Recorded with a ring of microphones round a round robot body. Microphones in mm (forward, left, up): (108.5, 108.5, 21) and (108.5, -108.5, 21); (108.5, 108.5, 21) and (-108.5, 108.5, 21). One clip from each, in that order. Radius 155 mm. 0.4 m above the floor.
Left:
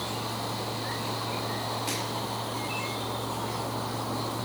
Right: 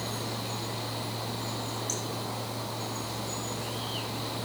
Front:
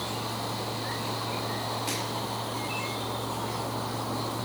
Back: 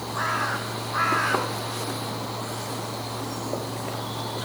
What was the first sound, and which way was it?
Only background noise.